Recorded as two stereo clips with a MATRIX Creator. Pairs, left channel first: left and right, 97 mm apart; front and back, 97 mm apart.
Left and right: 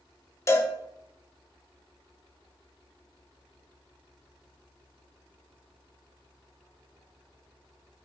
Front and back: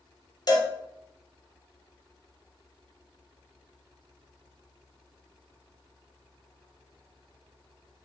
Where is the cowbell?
35° left, 0.5 m.